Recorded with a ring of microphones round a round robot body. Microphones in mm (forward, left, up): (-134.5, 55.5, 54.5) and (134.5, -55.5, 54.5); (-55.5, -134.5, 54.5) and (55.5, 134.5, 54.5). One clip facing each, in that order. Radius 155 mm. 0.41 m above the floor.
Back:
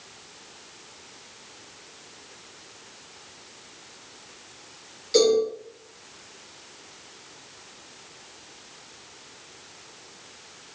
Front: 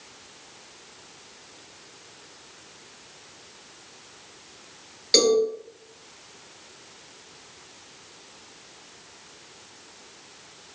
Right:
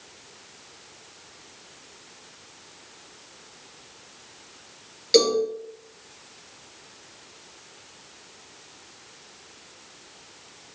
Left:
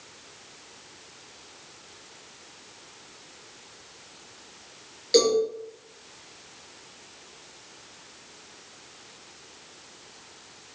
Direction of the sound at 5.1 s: 35° right.